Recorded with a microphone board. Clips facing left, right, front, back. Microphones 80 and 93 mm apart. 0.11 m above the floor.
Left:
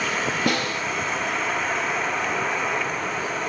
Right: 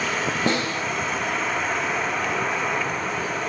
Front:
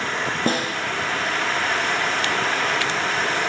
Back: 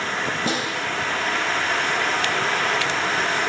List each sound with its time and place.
0.5 s a snare drum: 30° right, 2.5 m